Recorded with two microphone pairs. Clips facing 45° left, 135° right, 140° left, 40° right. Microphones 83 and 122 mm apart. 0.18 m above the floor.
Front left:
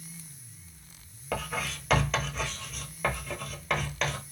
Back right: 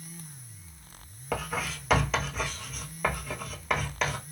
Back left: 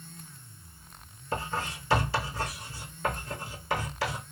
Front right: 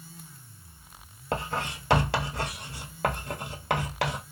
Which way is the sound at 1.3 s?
45° right.